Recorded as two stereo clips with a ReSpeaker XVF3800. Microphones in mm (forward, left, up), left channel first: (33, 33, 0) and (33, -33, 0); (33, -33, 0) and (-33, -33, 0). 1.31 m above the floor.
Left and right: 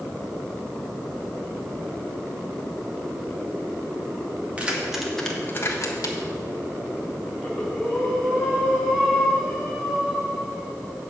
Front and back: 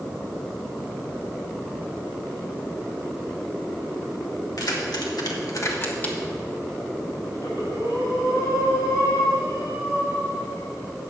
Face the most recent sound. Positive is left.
turn(degrees=-5)